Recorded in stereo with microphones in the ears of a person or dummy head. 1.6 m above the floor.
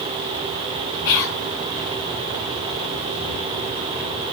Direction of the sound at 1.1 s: 65° left (ahead or behind).